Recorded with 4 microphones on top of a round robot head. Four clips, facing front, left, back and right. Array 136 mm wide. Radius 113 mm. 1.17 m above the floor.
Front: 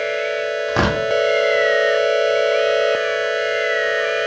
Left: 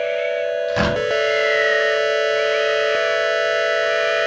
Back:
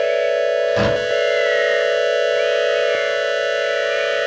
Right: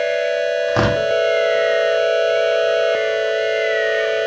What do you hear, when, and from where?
0.7 s tearing paper: 50° right, 3 m